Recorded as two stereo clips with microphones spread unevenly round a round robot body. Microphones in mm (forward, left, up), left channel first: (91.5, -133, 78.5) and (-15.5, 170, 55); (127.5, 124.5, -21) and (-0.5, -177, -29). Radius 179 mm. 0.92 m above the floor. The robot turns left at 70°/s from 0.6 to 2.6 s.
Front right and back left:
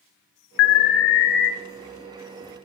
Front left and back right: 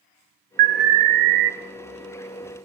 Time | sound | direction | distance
0.6 | an alarm | 45° right | 0.6 m